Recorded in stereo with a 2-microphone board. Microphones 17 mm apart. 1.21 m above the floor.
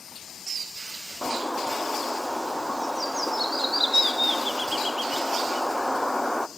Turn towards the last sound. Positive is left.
turn(degrees=-35)  # may be behind; listen again after turning